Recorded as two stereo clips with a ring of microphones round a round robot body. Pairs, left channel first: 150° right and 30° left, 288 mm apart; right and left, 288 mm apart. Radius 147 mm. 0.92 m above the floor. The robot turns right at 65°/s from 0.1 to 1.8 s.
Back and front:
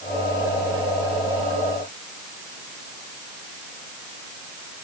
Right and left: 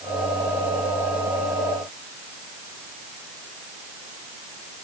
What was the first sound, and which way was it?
Only background noise.